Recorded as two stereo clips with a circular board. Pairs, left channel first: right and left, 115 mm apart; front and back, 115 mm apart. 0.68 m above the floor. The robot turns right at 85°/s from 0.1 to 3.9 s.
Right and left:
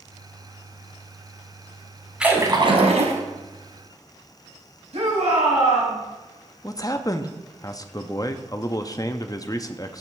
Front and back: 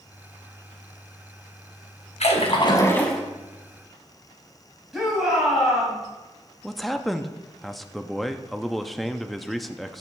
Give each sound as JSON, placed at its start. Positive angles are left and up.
{"t": 2.2, "sound": "a splash", "azimuth_deg": 5, "distance_m": 1.9}
{"t": 4.9, "sound": "a shout", "azimuth_deg": 95, "distance_m": 4.5}
{"t": 6.6, "sound": "a man speaking", "azimuth_deg": -90, "distance_m": 0.5}